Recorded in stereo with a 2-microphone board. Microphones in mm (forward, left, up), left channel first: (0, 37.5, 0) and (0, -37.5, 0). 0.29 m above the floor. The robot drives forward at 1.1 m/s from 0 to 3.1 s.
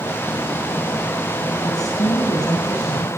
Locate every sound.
1.6 s a woman speaking: 55° left (ahead or behind), 3 m